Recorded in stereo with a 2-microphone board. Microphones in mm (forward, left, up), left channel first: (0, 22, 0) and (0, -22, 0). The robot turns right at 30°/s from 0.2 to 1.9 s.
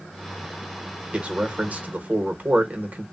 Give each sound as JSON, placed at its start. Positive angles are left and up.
{"t": 1.1, "sound": "a man speaking", "side_deg": -25, "distance_m": 0.9}